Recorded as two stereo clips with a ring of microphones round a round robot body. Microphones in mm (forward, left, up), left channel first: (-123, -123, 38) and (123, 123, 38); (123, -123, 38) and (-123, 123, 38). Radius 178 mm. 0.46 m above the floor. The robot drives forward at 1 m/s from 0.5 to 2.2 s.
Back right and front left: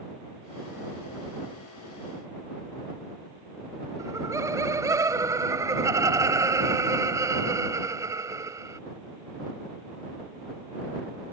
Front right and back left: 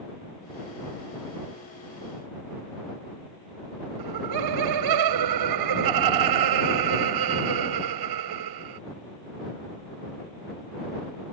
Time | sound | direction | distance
4.0 | laughter | 125° left | ?